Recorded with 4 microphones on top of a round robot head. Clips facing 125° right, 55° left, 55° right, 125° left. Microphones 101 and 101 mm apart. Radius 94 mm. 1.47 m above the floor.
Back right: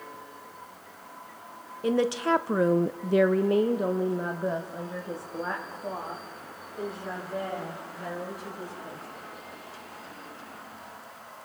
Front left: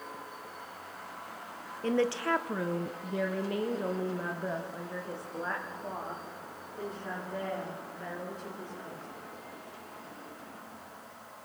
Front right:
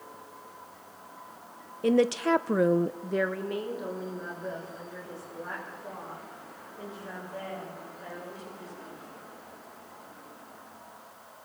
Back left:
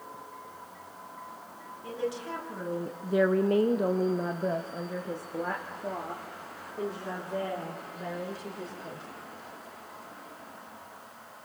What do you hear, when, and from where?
1.8 s a woman speaking: 45° right, 1.2 m; by 9.1 s 155° left, 6 m